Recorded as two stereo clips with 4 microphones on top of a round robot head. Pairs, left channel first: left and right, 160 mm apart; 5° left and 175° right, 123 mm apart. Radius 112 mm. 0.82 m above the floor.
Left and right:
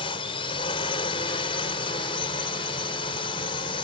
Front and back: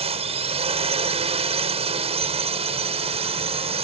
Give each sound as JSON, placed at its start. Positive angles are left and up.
{"t": 0.0, "sound": "a drone", "azimuth_deg": 155}